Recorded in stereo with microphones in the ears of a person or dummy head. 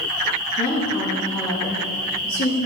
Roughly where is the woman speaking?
Left.